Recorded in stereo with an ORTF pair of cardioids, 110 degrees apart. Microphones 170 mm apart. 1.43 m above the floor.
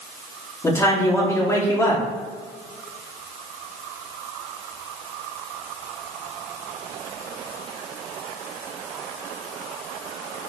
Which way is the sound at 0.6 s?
15° left.